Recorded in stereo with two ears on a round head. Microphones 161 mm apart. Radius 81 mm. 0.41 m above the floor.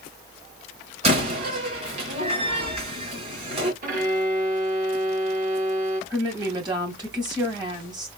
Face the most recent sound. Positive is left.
turn(degrees=-25)  # may be behind; listen again after turning